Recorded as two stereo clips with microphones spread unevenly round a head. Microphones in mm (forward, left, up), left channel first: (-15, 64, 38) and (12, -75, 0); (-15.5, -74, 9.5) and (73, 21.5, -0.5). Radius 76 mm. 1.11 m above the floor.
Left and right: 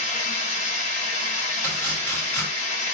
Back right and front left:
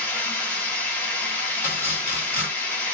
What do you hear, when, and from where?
0.0 s running water: 145° left, 1.0 m
1.6 s chopping: 160° left, 1.2 m